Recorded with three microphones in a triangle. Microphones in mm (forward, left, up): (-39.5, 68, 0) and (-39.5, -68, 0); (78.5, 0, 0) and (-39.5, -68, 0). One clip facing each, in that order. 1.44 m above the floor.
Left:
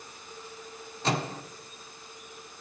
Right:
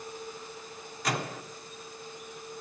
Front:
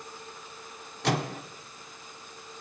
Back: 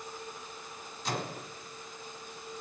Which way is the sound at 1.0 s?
30° left.